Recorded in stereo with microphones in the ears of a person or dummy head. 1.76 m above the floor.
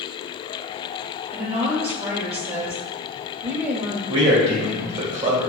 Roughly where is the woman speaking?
Right.